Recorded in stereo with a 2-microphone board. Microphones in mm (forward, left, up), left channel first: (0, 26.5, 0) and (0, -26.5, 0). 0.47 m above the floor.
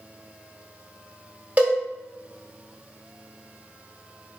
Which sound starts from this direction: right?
A cowbell, at 1.6 s.